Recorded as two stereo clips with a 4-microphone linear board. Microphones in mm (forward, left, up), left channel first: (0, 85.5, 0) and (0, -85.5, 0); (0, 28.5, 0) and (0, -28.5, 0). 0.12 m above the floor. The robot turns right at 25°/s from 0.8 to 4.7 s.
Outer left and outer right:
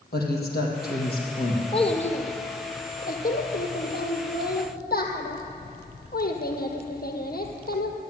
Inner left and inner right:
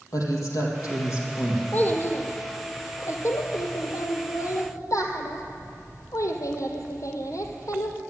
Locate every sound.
0.1 s a woman speaking: 70° left (ahead or behind), 4 m; by 1.6 s 55° left (ahead or behind), 4 m
1.7 s a child speaking: 35° left, 2 m; by 8.0 s 110° left, 2 m